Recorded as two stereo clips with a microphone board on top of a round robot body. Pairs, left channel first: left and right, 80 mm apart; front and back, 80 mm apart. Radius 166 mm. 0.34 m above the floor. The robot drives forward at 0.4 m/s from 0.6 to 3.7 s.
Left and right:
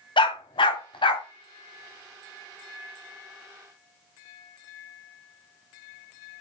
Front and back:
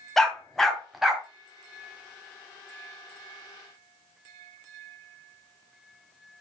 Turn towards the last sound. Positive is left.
turn(degrees=130)